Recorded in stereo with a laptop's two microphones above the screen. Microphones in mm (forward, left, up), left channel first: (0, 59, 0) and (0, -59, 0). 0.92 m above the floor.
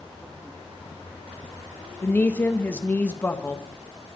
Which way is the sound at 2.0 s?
15° left (ahead or behind).